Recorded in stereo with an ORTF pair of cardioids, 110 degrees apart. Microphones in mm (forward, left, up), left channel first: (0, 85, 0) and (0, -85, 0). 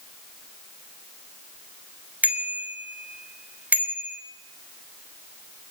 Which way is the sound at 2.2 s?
10° right.